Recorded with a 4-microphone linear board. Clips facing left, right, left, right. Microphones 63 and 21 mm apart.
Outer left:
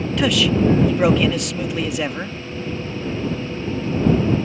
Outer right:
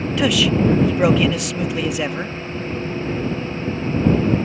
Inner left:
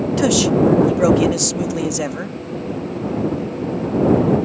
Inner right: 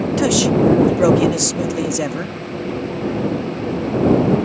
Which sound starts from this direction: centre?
A man speaking, at 0.2 s.